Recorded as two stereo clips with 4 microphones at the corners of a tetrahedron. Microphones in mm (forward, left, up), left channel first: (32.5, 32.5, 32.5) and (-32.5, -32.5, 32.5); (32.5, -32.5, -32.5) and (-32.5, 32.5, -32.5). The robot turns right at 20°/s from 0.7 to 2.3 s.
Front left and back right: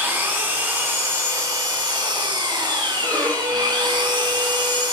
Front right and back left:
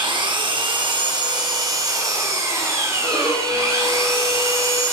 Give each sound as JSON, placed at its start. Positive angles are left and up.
{"t": 0.0, "sound": "an engine running", "azimuth_deg": 160, "distance_m": 4.0}
{"t": 3.0, "sound": "a violin", "azimuth_deg": -30, "distance_m": 3.5}